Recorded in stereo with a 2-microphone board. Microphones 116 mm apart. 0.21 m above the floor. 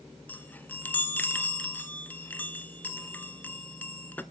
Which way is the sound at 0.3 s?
15° left (ahead or behind).